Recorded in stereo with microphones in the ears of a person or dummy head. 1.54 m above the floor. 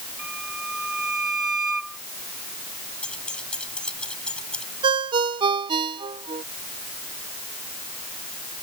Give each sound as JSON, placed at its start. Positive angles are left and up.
{"t": 0.2, "sound": "a violin", "side_deg": -5}
{"t": 3.0, "sound": "keys jangling", "side_deg": 10}
{"t": 4.8, "sound": "a ringtone", "side_deg": -30}